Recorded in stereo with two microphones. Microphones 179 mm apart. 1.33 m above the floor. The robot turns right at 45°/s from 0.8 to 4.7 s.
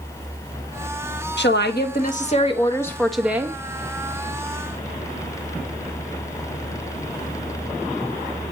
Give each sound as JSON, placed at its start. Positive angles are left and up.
{"t": 1.4, "sound": "a woman speaking", "azimuth_deg": 100, "distance_m": 1.3}